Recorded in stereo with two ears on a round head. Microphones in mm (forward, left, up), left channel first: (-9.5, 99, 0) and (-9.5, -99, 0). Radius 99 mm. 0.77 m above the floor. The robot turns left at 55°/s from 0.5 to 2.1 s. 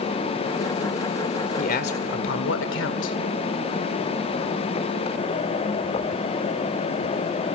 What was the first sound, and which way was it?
A man speaking, 35° left (ahead or behind).